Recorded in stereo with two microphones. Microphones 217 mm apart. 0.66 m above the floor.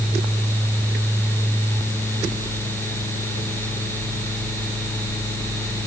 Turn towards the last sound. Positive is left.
No sound to turn to.